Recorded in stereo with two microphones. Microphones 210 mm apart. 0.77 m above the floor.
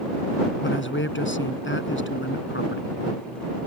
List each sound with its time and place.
0.6 s a man speaking: 60° left (ahead or behind)